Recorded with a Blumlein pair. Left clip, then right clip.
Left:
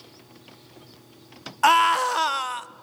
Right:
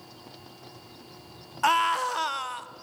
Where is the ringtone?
I don't hear a ringtone.